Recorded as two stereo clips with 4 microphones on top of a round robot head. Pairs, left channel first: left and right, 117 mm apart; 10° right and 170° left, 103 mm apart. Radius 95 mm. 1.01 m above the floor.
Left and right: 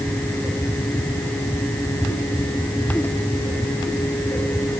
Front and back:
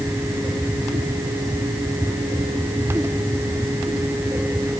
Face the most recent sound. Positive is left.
No sound to turn to.